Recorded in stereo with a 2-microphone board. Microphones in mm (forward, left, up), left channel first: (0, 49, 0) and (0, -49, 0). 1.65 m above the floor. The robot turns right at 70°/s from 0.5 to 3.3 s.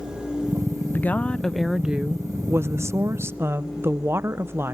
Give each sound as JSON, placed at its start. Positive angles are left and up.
{"t": 0.9, "sound": "a woman speaking", "side_deg": 20, "distance_m": 0.6}